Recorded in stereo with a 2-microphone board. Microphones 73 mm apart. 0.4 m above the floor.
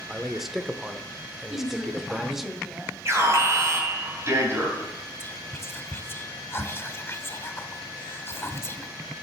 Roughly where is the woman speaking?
Centre.